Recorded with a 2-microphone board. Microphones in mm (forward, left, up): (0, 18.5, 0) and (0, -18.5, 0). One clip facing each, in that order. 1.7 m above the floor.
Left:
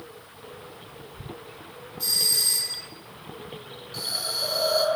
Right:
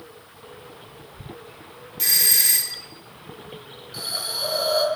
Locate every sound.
2.0 s a doorbell: 75° right (ahead or behind), 2.0 m
3.9 s a hiss: 5° right (ahead or behind), 8.5 m